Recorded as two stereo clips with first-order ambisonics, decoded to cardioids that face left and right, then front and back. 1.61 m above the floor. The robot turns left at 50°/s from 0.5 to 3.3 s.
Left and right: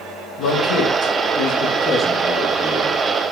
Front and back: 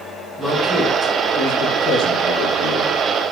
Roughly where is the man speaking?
Left.